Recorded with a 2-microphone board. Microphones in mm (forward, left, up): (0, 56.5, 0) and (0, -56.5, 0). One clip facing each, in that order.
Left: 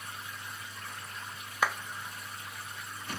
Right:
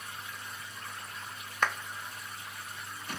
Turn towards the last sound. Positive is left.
turn(degrees=10)  # may be behind; listen again after turning